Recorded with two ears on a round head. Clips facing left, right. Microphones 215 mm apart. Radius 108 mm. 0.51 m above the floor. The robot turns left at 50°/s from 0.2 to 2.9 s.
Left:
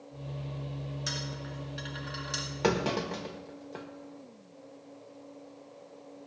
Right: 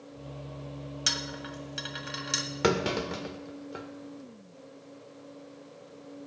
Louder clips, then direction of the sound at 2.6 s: Right 1 dB; 25° right (ahead or behind).